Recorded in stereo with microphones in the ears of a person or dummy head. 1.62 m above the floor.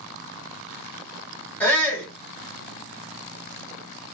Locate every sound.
1.6 s a shout: 10° left (ahead or behind), 1.4 m